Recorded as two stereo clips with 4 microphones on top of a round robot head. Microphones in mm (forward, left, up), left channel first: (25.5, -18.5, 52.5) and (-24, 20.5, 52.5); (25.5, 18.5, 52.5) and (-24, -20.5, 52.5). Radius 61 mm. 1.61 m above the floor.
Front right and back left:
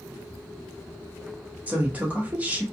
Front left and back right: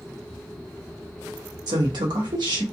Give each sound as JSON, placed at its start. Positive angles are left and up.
{"t": 1.7, "sound": "a woman speaking", "azimuth_deg": -150, "distance_m": 0.9}